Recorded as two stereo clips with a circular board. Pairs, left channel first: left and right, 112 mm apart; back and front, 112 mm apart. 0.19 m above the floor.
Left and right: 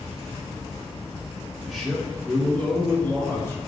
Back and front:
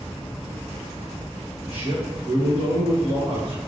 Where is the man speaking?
5° right, 1.9 m; by 3.6 s 30° left, 2.5 m.